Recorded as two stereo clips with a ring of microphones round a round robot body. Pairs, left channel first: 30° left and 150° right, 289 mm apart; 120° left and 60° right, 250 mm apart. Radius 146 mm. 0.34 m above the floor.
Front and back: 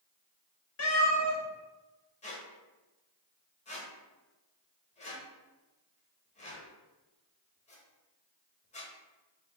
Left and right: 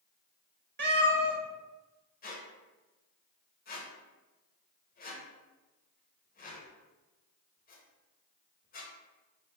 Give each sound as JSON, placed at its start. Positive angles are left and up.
{"t": 0.8, "sound": "a cat meowing", "azimuth_deg": -10, "distance_m": 2.0}
{"t": 2.2, "sound": "a squeak", "azimuth_deg": 85, "distance_m": 1.2}